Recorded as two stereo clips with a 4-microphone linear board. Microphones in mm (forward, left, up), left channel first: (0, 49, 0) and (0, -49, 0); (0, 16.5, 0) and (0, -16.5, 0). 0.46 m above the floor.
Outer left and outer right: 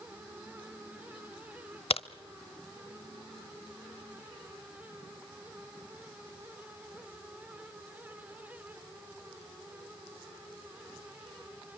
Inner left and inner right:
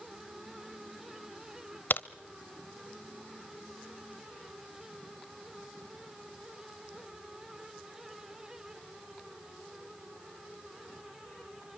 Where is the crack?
80° left, 0.8 m.